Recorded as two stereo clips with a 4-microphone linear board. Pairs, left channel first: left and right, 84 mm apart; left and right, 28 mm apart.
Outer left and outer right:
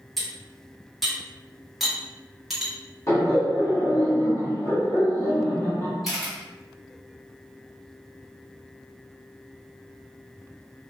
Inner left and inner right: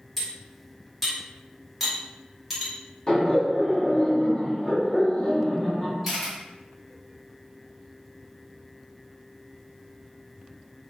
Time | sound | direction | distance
0.2 | cutlery clinking | centre (ahead or behind) | 1.3 m
3.1 | laughter | 35° left (ahead or behind) | 1.4 m
6.0 | a camera shutter | 5° right (ahead or behind) | 1.7 m